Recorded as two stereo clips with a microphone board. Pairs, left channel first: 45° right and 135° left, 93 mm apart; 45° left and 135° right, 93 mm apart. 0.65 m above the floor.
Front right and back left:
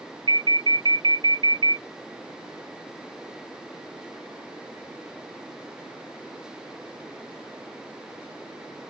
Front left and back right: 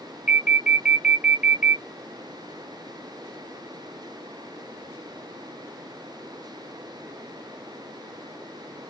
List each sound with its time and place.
0.3 s an alarm: 150° left, 0.7 m